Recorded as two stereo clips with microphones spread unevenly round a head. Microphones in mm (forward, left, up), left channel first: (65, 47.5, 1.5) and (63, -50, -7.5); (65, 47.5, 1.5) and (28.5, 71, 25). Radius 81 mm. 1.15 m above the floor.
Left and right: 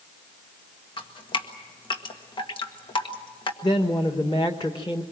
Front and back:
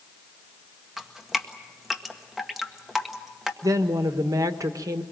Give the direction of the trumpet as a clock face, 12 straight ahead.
No trumpet in this recording.